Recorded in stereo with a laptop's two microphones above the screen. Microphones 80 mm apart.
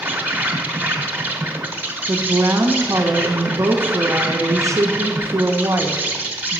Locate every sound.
0.0 s an insect: 20° right (ahead or behind), 1.0 m
2.1 s a woman speaking: 40° right (ahead or behind), 0.6 m